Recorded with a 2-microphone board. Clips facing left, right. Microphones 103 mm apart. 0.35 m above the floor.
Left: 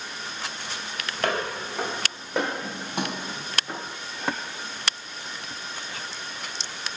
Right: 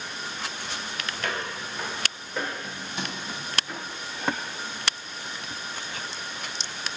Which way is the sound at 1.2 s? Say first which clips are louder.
Left 7 dB; 60° left (ahead or behind).